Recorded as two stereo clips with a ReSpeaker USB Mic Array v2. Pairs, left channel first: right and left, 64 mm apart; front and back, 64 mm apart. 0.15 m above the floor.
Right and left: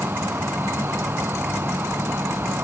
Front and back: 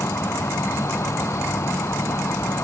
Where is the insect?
40° left.